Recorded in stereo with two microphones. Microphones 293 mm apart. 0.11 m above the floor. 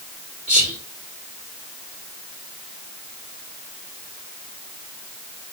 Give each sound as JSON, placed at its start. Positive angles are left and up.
{"t": 0.5, "sound": "whispering", "side_deg": -20, "distance_m": 1.5}